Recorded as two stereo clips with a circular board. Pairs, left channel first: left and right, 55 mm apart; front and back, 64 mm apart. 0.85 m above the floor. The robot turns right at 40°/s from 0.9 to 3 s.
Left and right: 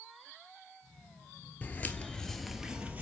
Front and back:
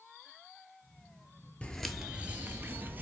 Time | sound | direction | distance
1.6 | footsteps | 55° left | 0.9 m